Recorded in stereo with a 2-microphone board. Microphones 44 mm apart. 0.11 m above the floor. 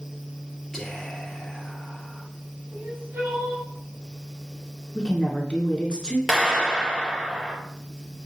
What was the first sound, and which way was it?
Whispering, 5° left (ahead or behind).